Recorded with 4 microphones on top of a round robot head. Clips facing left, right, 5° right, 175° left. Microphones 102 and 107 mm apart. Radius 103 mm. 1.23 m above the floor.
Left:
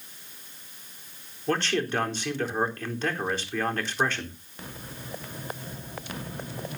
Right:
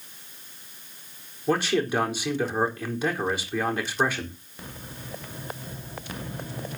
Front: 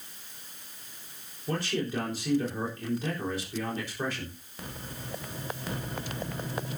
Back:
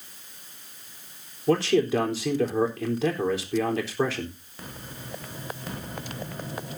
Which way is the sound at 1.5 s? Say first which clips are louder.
Right 3 dB, back 10 dB; 170° right.